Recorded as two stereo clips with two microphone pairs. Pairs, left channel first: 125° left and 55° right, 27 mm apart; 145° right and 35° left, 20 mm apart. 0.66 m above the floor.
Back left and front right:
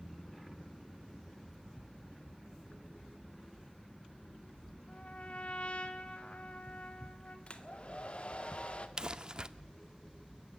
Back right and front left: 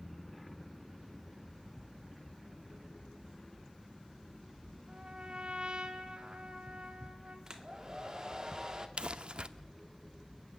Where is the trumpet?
80° left, 2 m.